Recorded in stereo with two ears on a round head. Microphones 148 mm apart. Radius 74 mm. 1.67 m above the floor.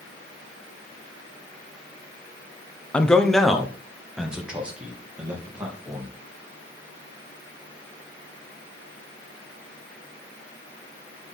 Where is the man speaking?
5° left (ahead or behind), 0.9 m; by 6.1 s 10° right (ahead or behind), 3 m.